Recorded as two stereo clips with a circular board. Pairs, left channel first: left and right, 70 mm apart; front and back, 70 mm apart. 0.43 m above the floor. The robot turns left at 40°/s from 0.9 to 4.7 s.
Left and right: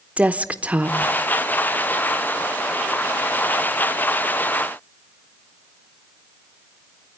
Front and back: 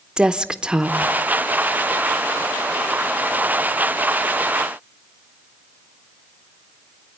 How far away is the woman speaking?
About 0.7 m.